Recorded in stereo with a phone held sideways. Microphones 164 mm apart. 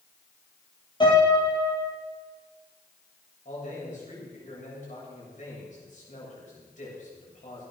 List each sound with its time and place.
1.0 s a piano: 30° left (ahead or behind), 7.5 m
3.5 s a man speaking: 50° left (ahead or behind), 8 m